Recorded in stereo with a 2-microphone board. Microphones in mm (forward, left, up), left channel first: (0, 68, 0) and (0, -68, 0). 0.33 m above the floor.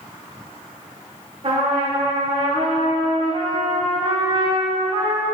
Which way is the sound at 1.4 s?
50° right (ahead or behind).